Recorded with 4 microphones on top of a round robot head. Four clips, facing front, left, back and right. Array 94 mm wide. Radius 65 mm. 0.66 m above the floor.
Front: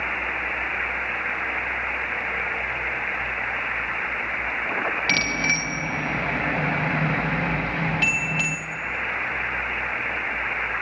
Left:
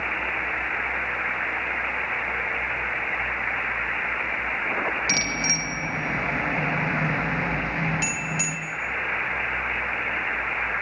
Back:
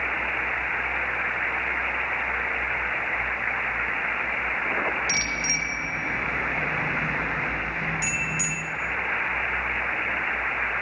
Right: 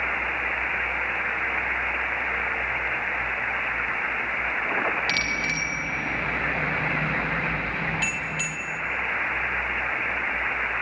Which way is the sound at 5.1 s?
30° left.